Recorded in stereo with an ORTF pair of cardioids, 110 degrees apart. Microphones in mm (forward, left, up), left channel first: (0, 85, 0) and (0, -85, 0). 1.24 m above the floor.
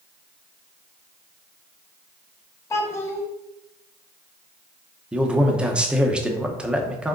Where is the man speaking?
5° right, 0.9 m.